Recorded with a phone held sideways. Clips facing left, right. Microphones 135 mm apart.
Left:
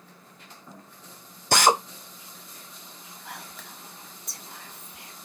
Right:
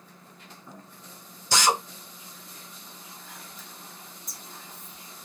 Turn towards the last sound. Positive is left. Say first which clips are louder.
# left 4 dB
turn(degrees=70)  # may be behind; listen again after turning